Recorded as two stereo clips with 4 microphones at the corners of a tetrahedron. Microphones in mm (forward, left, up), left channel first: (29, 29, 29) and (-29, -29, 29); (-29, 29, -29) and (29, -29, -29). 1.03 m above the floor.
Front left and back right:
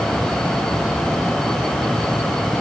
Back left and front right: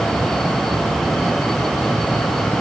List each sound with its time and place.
Only background noise.